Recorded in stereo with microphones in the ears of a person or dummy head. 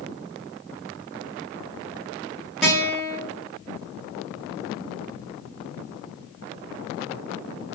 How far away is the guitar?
About 1.0 m.